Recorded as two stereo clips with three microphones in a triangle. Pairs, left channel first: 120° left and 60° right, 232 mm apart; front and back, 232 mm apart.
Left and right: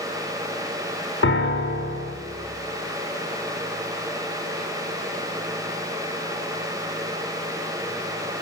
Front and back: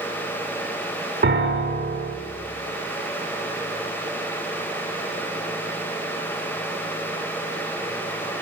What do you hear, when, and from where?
1.2 s a piano: 145° left, 0.5 m